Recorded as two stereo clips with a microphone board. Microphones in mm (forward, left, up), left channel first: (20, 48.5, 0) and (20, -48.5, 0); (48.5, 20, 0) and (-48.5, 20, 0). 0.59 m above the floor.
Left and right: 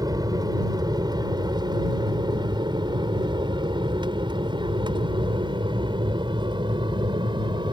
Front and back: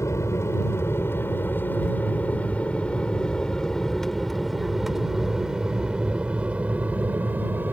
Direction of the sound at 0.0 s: 55° right.